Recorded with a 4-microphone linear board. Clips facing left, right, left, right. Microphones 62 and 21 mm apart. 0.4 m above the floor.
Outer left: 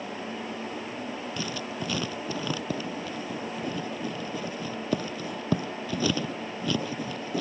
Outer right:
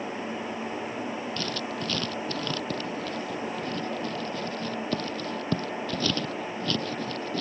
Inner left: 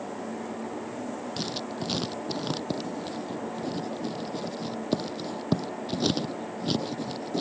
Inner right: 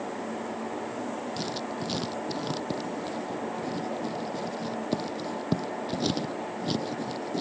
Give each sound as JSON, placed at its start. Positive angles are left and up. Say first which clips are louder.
{"t": 1.4, "sound": "writing", "louder": "outer right 1 dB, even", "side_deg": 15}